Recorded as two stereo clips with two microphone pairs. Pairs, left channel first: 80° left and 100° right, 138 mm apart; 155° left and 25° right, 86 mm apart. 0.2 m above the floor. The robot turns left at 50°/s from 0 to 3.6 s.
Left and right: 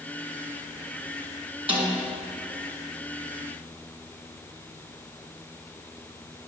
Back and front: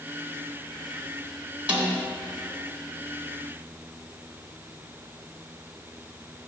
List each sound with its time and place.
1.7 s a snare drum: 95° right, 2.0 m; by 2.0 s 105° right, 2.0 m